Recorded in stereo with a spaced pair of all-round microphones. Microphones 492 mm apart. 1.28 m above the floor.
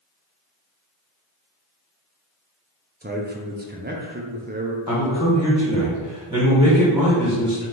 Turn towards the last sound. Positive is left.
turn(degrees=-10)  # may be behind; listen again after turning